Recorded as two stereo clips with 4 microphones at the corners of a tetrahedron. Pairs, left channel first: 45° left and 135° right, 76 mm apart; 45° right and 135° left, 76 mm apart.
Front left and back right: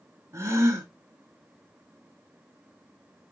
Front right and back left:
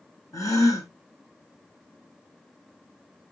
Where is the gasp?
90° right, 1.3 m.